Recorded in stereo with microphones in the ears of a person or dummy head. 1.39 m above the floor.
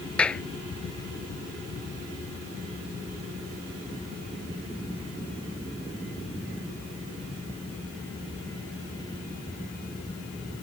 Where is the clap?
5° left (ahead or behind).